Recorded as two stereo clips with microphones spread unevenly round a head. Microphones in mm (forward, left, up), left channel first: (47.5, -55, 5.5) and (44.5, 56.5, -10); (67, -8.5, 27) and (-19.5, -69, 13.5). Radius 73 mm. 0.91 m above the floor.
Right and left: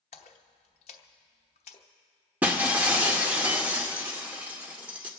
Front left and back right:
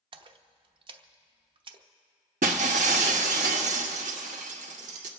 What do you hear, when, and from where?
0.1 s a splash: 130° right, 0.9 m
2.4 s breaking glass: 175° left, 0.8 m